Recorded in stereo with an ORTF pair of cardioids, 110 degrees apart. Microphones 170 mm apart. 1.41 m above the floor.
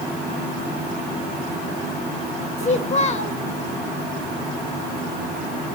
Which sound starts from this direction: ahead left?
A child speaking, at 2.6 s.